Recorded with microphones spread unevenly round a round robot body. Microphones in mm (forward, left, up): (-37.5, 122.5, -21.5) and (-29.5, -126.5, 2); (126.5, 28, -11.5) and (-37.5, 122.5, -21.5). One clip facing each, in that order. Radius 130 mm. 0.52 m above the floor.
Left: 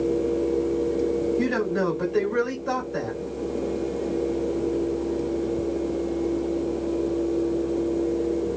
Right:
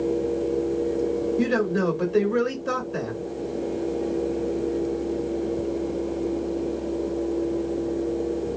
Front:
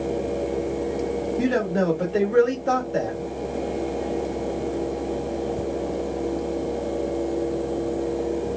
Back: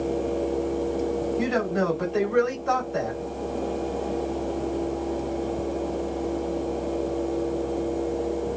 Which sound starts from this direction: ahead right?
A man speaking, at 1.4 s.